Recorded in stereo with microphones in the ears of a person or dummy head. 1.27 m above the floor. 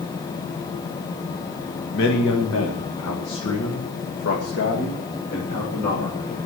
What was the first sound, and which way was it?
A man speaking, 60° left (ahead or behind).